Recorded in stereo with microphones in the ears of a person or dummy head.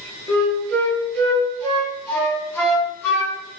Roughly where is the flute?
Centre.